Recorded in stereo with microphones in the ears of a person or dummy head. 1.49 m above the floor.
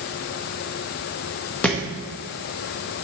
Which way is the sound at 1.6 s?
5° left (ahead or behind).